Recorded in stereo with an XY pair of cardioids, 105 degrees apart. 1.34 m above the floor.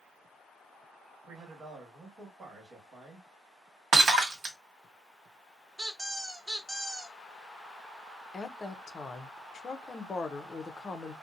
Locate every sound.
1.3 s a man speaking: 45° right, 1.5 m
3.9 s breaking glass: 55° right, 1.4 m
5.8 s a squeak: 10° right, 0.8 m
8.3 s a woman speaking: 35° left, 0.5 m